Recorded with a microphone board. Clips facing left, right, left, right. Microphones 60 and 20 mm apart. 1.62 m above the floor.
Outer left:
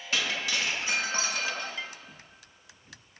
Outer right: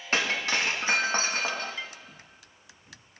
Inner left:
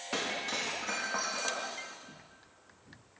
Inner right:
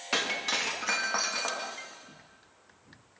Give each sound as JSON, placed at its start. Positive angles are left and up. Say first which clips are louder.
{"t": 0.1, "sound": "breaking glass", "louder": "outer right 3 dB, inner right 5 dB", "side_deg": -45, "distance_m": 1.1}